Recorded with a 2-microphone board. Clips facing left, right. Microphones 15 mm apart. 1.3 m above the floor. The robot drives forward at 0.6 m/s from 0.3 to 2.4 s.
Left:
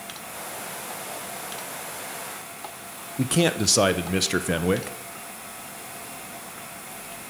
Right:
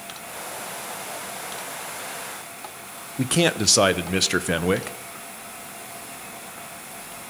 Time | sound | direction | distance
3.2 | a man speaking | 5° right (ahead or behind) | 0.7 m